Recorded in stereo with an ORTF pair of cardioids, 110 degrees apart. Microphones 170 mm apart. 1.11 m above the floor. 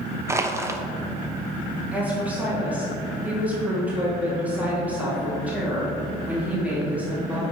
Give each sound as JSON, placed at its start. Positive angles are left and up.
{"t": 0.3, "sound": "crushing", "azimuth_deg": -15, "distance_m": 0.6}
{"t": 1.9, "sound": "a woman speaking", "azimuth_deg": -10, "distance_m": 2.0}